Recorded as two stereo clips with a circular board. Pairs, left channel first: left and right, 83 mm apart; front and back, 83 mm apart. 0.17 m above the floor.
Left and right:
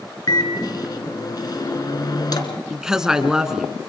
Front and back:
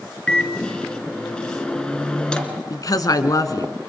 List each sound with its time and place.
0.3 s a microwave: 75° left, 1.5 m
2.7 s a woman speaking: 10° right, 1.4 m